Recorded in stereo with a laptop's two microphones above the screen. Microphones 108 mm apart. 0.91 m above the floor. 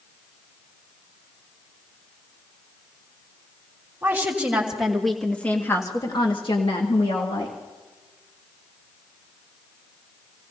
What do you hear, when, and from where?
4.0 s a woman speaking: 20° right (ahead or behind), 3 m; by 7.6 s 70° left (ahead or behind), 2.5 m